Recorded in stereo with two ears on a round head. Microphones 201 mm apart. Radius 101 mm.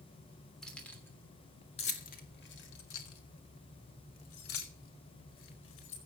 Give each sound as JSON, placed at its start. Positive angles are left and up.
{"t": 0.6, "sound": "keys jangling", "side_deg": 5, "distance_m": 3.0}